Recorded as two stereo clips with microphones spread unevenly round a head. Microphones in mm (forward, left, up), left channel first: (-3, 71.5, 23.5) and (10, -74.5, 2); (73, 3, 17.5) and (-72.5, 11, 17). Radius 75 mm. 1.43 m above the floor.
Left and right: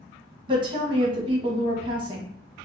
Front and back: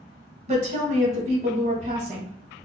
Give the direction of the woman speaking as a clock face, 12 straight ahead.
5 o'clock.